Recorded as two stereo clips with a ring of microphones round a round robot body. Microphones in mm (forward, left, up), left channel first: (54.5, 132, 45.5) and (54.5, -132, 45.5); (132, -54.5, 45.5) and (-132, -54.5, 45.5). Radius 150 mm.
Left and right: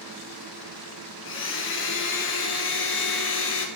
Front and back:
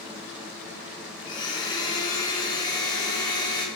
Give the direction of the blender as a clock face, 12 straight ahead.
10 o'clock.